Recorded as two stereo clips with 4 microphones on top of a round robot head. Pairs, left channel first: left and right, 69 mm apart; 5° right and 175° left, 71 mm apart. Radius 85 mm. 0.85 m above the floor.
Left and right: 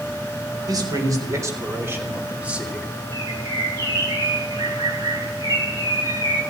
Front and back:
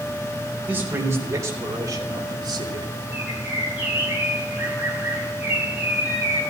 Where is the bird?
115° right, 6 m.